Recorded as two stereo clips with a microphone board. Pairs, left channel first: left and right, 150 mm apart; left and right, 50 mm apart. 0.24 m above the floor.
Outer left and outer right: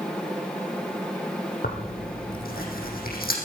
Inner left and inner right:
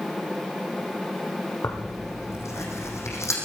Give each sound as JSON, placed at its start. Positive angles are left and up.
{"t": 1.6, "sound": "tearing paper", "side_deg": 85, "distance_m": 4.0}